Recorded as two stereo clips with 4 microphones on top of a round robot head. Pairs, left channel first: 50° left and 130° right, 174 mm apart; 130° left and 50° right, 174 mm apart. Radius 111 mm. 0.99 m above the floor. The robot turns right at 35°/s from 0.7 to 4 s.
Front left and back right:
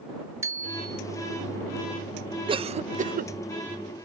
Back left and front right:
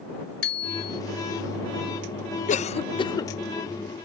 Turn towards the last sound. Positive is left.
turn(degrees=-135)